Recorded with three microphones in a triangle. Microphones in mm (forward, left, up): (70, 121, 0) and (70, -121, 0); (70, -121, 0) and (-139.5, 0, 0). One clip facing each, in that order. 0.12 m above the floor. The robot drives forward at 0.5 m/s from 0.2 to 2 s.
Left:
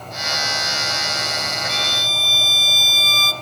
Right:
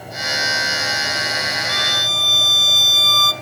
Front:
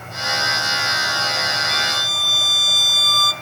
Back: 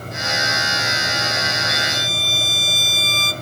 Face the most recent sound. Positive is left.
turn(degrees=115)